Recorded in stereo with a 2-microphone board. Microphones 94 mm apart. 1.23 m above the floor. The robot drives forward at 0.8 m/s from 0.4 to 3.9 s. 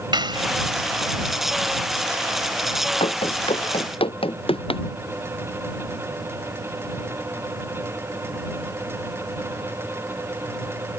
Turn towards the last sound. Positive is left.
turn(degrees=80)